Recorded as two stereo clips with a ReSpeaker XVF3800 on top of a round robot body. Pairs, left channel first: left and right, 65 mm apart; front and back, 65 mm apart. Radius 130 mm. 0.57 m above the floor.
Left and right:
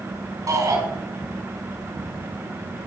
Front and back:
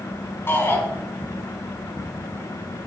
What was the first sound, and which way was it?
A shout, 55° right.